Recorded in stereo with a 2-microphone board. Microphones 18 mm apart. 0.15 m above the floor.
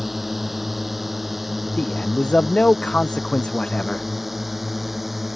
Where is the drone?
5° right (ahead or behind).